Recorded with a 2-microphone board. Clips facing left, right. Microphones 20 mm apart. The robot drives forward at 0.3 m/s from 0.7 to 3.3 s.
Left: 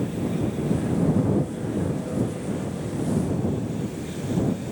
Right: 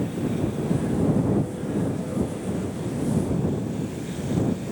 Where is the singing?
No singing in this recording.